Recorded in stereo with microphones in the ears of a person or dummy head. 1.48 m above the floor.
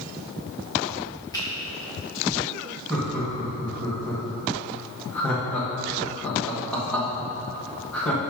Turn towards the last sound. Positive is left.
turn(degrees=10)  # may be behind; listen again after turning